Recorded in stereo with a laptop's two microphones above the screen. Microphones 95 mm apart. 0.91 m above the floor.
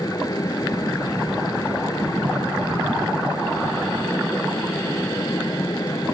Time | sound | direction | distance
0.0 | a fan | 40° left (ahead or behind) | ?